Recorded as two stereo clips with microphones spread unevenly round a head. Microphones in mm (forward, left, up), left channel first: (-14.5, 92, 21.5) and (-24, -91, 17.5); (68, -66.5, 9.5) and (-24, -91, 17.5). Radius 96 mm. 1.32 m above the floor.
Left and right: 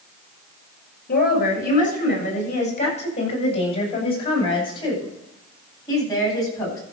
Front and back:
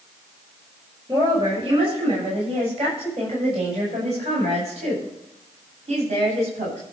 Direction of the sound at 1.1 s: 130° left.